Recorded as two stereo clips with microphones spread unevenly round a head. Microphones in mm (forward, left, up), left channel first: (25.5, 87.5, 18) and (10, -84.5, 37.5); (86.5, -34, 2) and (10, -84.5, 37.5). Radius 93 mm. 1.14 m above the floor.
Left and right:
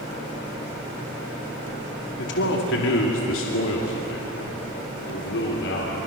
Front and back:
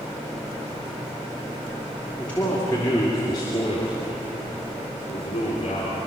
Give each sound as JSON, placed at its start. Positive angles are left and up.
{"t": 2.2, "sound": "a man speaking", "azimuth_deg": 115, "distance_m": 3.0}